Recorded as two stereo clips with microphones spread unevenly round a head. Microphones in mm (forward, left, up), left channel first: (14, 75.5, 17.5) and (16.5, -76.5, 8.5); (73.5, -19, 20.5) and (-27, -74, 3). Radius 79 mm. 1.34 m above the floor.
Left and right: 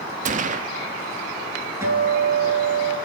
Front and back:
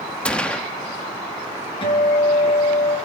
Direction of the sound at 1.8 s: 15° right.